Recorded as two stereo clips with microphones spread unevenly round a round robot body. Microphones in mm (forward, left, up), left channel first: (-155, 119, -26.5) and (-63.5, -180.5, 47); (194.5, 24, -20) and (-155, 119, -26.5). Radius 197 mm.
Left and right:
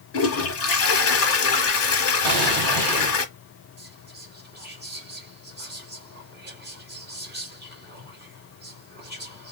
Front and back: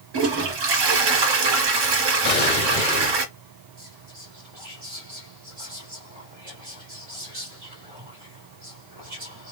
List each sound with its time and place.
0.1 s a toilet flushing: 150° left, 1.2 m
2.2 s an explosion: 70° right, 1.9 m
3.8 s whispering: 135° right, 1.9 m